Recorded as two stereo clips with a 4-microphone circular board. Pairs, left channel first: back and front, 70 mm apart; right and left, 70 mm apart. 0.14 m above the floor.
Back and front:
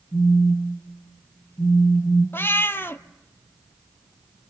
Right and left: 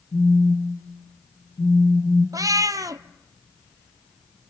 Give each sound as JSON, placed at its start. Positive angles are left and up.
{"t": 0.1, "sound": "a phone buzzing", "azimuth_deg": -110, "distance_m": 2.5}
{"t": 2.3, "sound": "a cat meowing", "azimuth_deg": 125, "distance_m": 0.6}